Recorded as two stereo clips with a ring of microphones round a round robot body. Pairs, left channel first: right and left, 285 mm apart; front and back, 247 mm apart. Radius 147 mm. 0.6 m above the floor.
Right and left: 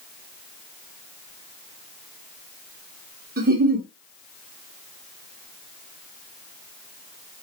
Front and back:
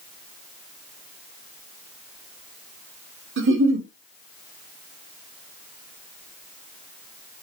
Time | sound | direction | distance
3.4 | a giggle | 150° left | 1.8 m